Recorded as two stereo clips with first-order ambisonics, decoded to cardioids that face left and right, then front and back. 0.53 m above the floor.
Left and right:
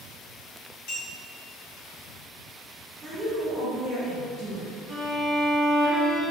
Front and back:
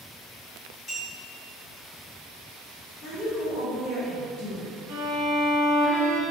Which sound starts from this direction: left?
A clink, at 0.9 s.